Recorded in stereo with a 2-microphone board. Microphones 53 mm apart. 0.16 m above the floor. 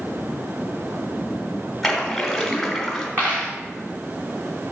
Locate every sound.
1.8 s a splash: centre (ahead or behind), 1.6 m
3.2 s a dropped coin: 40° right (ahead or behind), 3 m